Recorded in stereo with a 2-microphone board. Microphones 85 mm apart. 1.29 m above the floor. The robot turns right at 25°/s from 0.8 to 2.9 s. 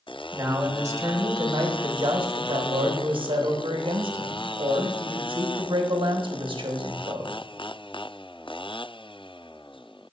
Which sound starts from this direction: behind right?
A man speaking, at 0.3 s.